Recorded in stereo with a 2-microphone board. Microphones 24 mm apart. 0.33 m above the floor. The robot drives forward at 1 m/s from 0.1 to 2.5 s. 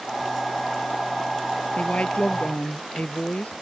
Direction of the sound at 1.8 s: 65° left (ahead or behind).